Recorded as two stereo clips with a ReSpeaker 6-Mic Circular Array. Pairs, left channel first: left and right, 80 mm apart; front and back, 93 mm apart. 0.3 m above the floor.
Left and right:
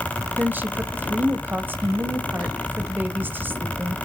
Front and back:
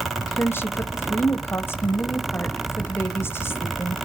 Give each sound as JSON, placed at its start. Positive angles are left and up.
{"t": 0.4, "sound": "a woman speaking", "azimuth_deg": -45, "distance_m": 1.3}